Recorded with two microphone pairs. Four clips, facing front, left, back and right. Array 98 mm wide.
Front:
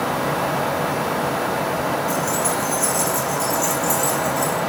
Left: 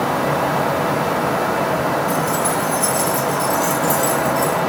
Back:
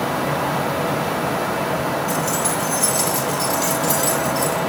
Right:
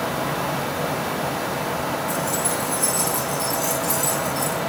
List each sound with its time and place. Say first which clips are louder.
2.1 s keys jangling: left 6 dB, even; 165° left, 6.5 m; by 4.6 s 175° right, 9 m